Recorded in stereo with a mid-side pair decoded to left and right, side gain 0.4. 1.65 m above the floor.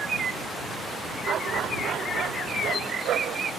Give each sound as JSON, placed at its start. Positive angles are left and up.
{"t": 1.3, "sound": "a dog barking", "azimuth_deg": -70}